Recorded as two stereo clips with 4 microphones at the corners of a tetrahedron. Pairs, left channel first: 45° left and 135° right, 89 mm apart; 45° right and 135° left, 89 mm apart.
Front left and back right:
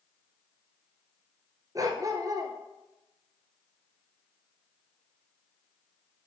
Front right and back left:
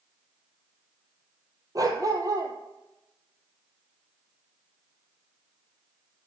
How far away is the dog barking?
About 1.1 m.